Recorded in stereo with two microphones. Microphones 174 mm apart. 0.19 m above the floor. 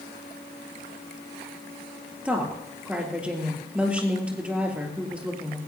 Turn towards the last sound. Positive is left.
turn(degrees=-5)  # may be behind; listen again after turning